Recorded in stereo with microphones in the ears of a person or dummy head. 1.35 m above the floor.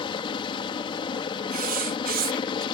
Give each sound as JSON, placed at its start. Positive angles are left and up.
{"t": 0.0, "sound": "a helicopter", "side_deg": 25}
{"t": 1.5, "sound": "writing", "side_deg": -40}